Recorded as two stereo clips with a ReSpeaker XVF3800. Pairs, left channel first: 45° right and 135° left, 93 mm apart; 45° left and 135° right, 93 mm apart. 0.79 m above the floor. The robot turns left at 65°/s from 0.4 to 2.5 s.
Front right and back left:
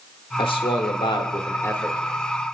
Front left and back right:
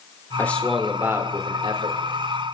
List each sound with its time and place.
0.4 s a man speaking: 25° right, 2.5 m; by 2.0 s 125° right, 2.5 m